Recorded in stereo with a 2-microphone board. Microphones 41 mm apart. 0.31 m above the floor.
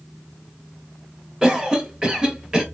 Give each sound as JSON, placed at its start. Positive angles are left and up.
{"t": 1.4, "sound": "a cough", "side_deg": -15, "distance_m": 0.9}